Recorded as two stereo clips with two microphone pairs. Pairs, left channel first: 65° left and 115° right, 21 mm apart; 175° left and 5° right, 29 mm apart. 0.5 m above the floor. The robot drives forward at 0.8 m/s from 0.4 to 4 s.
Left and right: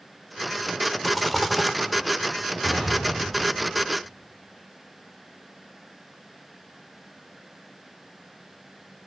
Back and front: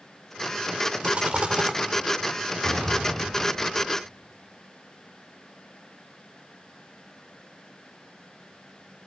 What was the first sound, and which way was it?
A rattle, 20° right.